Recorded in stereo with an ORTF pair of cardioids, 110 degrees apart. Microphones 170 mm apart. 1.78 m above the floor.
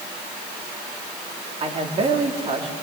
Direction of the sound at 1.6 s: 35° right.